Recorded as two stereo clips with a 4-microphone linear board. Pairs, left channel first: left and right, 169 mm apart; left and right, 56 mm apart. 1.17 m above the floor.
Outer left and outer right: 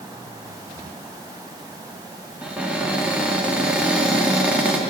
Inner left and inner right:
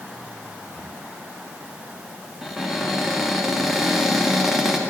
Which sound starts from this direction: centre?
A cupboard door, at 2.4 s.